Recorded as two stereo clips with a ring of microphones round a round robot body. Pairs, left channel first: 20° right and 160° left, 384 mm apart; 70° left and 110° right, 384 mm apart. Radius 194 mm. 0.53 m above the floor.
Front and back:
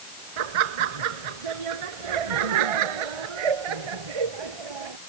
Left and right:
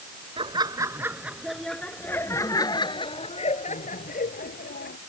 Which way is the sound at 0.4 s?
170° left.